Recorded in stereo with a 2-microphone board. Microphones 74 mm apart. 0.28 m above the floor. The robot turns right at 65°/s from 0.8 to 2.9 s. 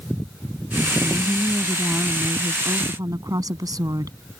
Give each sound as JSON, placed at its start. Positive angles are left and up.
{"t": 1.0, "sound": "a woman speaking", "azimuth_deg": 130}